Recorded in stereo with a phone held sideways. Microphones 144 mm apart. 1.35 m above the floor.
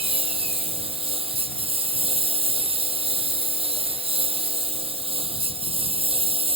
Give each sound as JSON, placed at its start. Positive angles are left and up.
{"t": 0.0, "sound": "a lawn mower", "side_deg": -40}